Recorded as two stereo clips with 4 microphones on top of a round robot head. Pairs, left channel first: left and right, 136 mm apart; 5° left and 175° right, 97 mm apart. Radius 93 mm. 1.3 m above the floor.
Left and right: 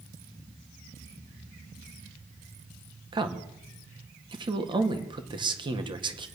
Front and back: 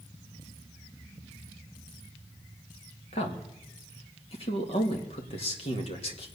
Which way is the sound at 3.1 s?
35° right.